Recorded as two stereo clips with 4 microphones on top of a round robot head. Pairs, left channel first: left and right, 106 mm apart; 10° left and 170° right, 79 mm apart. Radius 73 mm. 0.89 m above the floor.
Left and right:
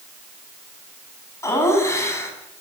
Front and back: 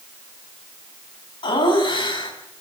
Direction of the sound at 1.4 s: 25° left.